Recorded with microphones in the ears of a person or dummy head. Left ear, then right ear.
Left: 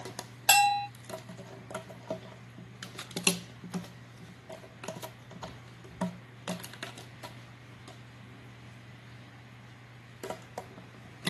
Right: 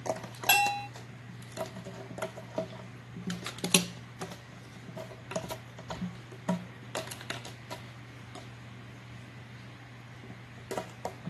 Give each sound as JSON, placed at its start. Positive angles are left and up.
{"t": 0.5, "sound": "a bell", "side_deg": 20, "distance_m": 0.5}